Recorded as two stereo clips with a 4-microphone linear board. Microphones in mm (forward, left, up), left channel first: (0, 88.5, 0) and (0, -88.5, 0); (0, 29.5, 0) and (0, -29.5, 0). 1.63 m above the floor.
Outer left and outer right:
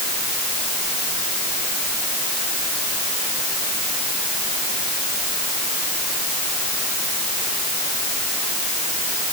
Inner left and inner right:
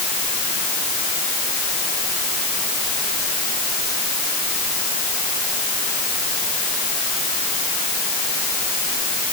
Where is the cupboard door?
I don't hear a cupboard door.